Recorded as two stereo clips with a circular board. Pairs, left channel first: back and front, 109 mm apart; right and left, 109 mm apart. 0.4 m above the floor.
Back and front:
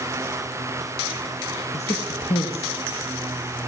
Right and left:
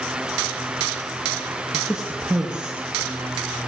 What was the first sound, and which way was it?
A woman speaking, 175° left.